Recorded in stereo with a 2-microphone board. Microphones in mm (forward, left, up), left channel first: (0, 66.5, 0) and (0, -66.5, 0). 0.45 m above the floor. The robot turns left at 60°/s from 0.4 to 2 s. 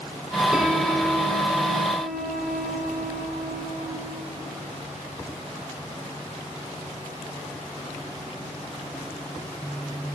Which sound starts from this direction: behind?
A piano, at 0.5 s.